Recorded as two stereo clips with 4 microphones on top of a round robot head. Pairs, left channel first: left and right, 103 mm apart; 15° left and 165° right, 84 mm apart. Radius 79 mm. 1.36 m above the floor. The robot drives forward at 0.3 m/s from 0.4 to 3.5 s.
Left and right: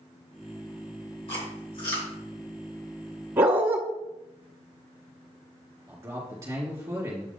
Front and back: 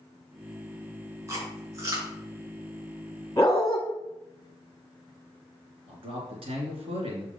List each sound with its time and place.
1.3 s chewing: 140° left, 4 m; by 2.1 s 145° left, 4 m
3.4 s a dog barking: 40° right, 0.9 m
5.9 s a man speaking: 155° right, 2 m